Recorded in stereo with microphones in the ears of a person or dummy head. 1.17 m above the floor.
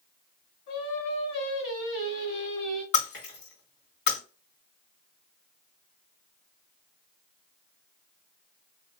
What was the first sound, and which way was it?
Singing, 65° left (ahead or behind).